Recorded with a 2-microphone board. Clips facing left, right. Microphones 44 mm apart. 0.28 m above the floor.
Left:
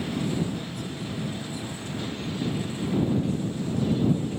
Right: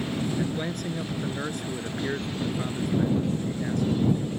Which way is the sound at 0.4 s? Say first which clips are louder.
Right 2 dB; 65° right (ahead or behind).